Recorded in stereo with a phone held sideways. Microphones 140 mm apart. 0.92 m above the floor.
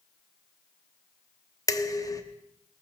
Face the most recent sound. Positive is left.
turn(degrees=25)  # may be behind; listen again after turning